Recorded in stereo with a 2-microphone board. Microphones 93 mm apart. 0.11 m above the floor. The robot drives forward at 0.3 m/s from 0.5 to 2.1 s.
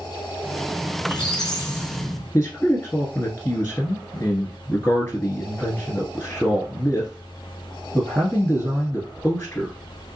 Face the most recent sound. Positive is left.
turn(degrees=25)  # may be behind; listen again after turning